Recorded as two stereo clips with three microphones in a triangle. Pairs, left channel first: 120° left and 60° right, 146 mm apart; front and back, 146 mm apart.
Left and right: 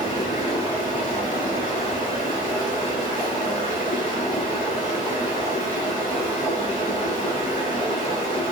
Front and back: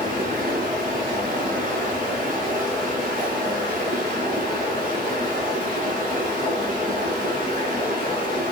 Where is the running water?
160° left, 1.5 m.